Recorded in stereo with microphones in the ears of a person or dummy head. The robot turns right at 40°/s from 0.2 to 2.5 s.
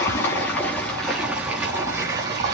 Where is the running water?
15° left (ahead or behind), 1.3 m; by 2.5 s 20° right (ahead or behind), 1.3 m.